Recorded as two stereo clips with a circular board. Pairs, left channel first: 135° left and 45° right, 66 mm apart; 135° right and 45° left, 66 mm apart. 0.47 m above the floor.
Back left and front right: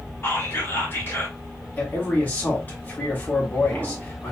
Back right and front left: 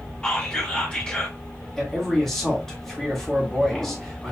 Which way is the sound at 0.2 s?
160° left.